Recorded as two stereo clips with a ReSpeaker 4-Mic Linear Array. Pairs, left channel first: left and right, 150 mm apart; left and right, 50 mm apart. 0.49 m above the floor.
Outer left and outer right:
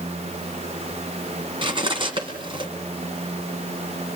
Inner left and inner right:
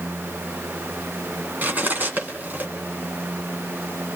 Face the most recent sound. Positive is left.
turn(degrees=-35)  # may be behind; listen again after turning